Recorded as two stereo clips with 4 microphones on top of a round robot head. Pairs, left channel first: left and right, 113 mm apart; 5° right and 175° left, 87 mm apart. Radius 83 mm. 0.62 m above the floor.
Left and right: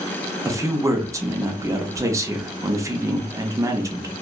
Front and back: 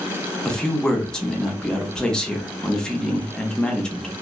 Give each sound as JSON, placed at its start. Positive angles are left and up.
{"t": 0.5, "sound": "a man speaking", "azimuth_deg": -75, "distance_m": 0.6}